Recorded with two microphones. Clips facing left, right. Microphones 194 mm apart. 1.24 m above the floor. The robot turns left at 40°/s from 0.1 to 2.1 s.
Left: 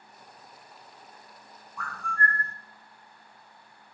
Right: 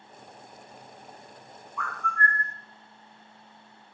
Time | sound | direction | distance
1.8 | a bird | 35° left (ahead or behind) | 0.7 m